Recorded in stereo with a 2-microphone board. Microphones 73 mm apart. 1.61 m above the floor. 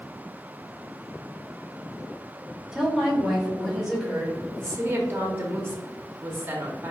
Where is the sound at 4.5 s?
30° right (ahead or behind), 0.7 m.